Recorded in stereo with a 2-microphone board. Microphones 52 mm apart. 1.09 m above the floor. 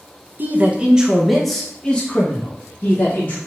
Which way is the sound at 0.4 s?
35° right (ahead or behind).